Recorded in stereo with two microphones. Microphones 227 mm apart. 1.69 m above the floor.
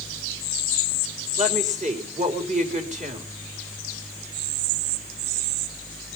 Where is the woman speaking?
35° right (ahead or behind), 4.5 m.